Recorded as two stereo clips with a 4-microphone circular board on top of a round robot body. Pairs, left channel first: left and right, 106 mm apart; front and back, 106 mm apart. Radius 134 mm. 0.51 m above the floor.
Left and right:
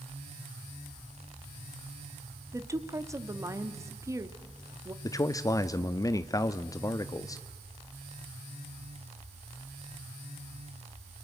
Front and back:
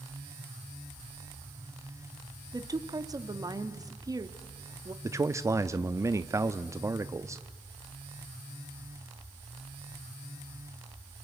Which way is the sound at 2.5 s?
140° right.